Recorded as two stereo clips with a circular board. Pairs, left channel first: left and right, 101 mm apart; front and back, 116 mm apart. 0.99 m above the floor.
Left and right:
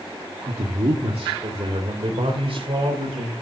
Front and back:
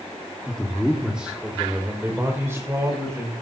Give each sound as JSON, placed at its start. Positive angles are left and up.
{"t": 0.5, "sound": "a man speaking", "azimuth_deg": -80, "distance_m": 1.7}